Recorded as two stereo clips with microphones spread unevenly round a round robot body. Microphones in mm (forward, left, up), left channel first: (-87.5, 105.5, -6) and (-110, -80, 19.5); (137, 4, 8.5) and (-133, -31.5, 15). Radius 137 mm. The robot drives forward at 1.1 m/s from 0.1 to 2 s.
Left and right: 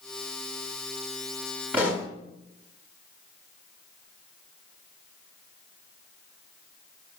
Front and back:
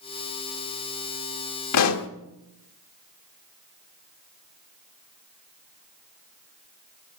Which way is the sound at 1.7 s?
10° right.